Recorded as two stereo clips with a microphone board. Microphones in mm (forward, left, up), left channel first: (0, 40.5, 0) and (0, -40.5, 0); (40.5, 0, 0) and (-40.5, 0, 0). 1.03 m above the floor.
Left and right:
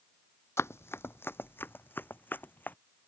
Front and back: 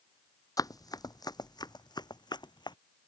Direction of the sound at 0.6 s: 35° left.